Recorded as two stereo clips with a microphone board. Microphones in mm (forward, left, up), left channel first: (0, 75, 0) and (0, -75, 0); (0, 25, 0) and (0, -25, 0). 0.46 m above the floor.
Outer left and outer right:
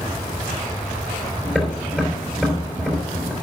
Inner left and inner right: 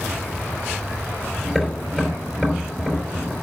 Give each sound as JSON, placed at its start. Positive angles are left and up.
{"t": 1.4, "sound": "tapping", "side_deg": -5, "distance_m": 3.5}